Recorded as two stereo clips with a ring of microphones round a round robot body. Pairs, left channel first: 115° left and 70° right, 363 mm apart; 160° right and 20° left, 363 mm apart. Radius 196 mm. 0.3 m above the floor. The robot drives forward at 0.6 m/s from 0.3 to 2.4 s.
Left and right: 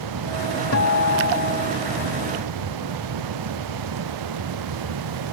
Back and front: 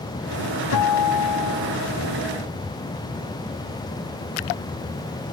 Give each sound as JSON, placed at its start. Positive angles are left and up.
{"t": 0.7, "sound": "a guitar", "azimuth_deg": 165}